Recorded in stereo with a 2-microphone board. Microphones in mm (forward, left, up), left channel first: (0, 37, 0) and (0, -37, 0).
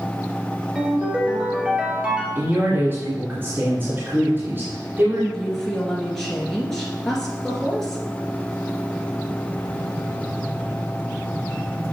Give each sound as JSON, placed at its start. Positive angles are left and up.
{"t": 0.8, "sound": "a ringtone", "side_deg": -15, "distance_m": 1.9}
{"t": 2.4, "sound": "a man speaking", "side_deg": -30, "distance_m": 2.0}
{"t": 5.3, "sound": "a woman speaking", "side_deg": 5, "distance_m": 2.0}